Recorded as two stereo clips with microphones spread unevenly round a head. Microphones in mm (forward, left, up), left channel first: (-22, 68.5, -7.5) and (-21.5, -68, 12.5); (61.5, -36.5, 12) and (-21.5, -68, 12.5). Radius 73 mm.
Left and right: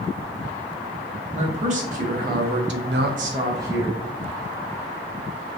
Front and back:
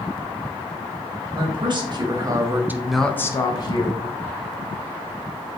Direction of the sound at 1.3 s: 130° right.